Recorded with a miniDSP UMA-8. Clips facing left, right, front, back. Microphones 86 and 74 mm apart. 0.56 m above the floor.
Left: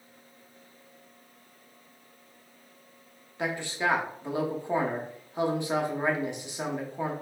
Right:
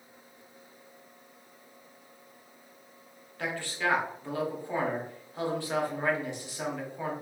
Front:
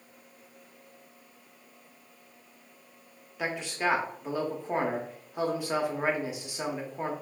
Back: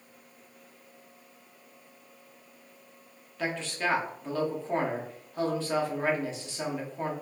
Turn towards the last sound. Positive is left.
turn(degrees=50)